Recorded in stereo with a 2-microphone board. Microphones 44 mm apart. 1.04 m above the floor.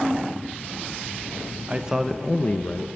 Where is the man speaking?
30° right (ahead or behind), 0.7 m; by 2.9 s 55° left (ahead or behind), 0.8 m.